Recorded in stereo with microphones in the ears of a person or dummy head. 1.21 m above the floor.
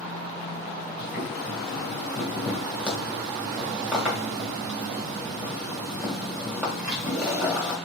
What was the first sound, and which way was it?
Boiling, 5° right (ahead or behind).